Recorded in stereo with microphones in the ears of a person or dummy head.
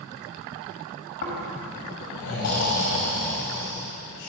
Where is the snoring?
60° left (ahead or behind), 1.6 m.